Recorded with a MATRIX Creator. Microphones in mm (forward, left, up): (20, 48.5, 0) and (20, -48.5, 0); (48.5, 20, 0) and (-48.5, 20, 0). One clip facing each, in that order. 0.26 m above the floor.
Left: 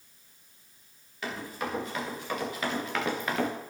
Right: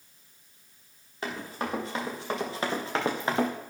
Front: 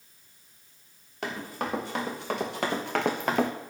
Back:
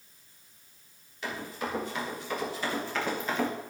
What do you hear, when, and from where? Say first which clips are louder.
1.2 s running footsteps: right 1 dB, front 2 dB; 30° right, 5 m; by 3.5 s 25° right, 1.8 m